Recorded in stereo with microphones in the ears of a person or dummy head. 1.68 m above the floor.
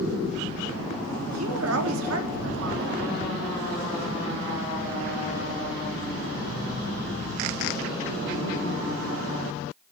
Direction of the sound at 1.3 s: 80° right.